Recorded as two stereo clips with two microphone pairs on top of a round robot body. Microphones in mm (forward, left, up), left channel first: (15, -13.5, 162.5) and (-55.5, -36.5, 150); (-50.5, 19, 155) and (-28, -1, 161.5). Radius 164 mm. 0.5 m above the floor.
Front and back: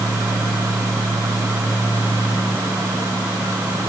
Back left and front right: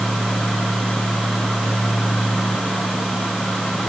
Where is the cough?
I don't hear a cough.